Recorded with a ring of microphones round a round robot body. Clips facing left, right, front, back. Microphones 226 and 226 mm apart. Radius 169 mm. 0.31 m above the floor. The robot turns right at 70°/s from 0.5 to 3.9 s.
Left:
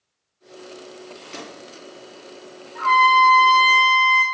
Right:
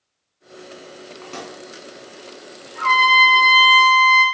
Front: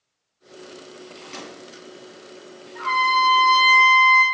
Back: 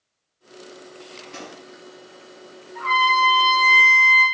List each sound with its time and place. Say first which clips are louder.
1.2 s a microwave: right 3 dB, even; 70° right, 2.5 m; by 1.6 s 50° right, 2.5 m
2.8 s a trumpet: left 2 dB, back 1 dB; 70° right, 1.7 m; by 4.2 s 10° left, 1.7 m